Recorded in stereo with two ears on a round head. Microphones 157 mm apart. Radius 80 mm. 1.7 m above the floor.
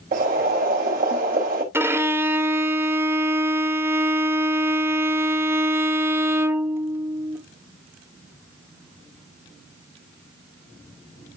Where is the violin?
15° right (ahead or behind), 0.7 m.